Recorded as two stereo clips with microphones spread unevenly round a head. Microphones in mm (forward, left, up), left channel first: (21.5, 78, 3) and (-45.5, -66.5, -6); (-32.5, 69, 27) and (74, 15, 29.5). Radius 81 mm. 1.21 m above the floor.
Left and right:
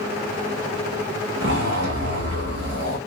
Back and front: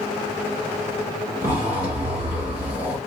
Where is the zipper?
90° right, 1.5 m.